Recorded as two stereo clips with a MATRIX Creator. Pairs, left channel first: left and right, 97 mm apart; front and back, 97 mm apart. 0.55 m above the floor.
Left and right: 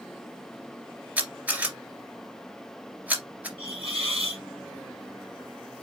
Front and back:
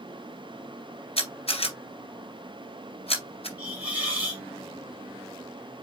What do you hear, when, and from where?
1.2 s a camera shutter: 15° right, 2 m
3.6 s a hiss: 105° right, 3 m